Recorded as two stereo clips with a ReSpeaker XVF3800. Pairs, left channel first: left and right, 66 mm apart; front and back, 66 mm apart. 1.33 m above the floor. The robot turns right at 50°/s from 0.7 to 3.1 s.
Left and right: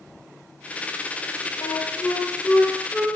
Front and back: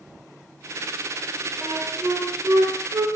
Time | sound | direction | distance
1.6 | a flute | 115° left | 0.5 m